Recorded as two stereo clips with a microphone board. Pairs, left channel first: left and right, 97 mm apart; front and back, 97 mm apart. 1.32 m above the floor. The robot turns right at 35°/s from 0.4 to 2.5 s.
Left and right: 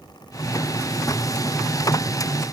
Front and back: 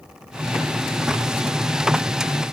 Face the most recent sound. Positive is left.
No sound to turn to.